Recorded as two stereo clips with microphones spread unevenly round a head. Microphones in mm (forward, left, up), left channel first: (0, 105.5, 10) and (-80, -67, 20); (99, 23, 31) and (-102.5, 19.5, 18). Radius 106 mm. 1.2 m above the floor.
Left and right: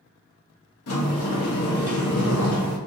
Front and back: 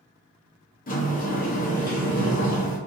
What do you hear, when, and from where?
0.9 s a sliding door: 50° left, 0.8 m